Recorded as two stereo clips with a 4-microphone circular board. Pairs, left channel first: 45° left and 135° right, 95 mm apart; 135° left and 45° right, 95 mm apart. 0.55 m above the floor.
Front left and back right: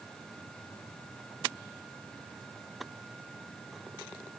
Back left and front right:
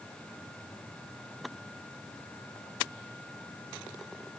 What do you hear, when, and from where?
Only background noise.